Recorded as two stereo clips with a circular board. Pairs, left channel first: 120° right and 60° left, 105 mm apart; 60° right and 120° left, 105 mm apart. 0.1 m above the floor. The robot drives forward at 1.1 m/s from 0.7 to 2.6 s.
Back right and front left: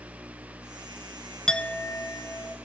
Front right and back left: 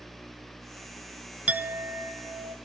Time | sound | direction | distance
1.5 | a clink | 170° left | 0.7 m